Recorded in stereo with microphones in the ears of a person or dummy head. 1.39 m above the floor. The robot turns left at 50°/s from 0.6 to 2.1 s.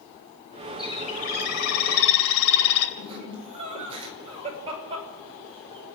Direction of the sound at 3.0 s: 30° right (ahead or behind).